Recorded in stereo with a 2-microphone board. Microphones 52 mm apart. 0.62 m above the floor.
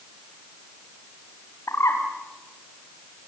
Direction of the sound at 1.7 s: 75° left (ahead or behind).